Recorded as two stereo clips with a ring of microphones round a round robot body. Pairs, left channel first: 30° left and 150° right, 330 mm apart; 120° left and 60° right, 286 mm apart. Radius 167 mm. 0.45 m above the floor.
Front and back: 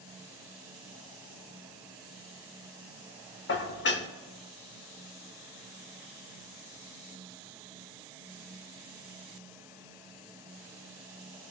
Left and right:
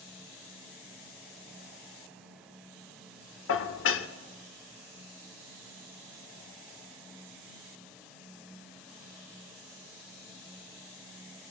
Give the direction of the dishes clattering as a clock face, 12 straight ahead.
9 o'clock.